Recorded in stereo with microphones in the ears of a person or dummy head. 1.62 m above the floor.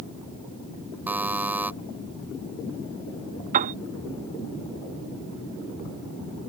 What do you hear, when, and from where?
1.1 s a buzzer: 10° right (ahead or behind)
3.5 s a piano: 40° right (ahead or behind)